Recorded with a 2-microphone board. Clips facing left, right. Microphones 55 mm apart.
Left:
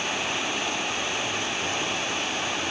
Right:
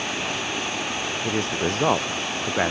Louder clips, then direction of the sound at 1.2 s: Right 4 dB; 70° right (ahead or behind).